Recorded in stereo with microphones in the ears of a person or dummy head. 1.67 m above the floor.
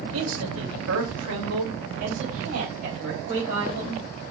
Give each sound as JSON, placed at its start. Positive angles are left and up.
{"t": 0.1, "sound": "a man speaking", "side_deg": -80, "distance_m": 2.5}